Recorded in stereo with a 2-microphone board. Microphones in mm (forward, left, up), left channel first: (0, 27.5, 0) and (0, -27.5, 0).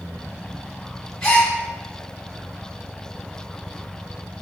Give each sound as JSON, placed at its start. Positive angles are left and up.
{"t": 1.2, "sound": "a gasp", "side_deg": 15, "distance_m": 1.1}